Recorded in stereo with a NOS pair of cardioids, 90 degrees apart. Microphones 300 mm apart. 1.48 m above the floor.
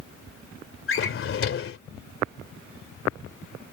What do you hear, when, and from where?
0.9 s a drawer: 45° left